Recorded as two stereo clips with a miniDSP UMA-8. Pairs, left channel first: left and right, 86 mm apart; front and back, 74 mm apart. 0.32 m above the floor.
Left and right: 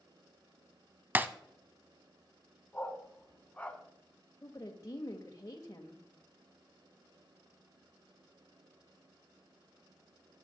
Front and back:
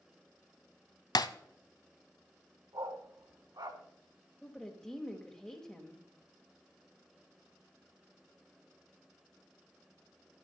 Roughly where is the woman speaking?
Left.